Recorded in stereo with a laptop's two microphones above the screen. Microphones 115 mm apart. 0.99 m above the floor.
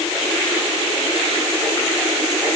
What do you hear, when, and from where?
Only background noise.